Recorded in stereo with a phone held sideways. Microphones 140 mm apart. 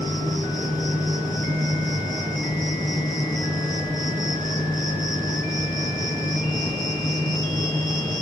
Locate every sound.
0.0 s an insect: 30° left (ahead or behind), 4 m